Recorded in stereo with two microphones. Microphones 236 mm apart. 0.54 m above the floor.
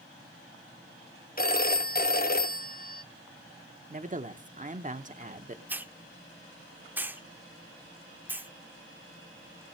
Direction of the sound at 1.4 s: 40° left (ahead or behind).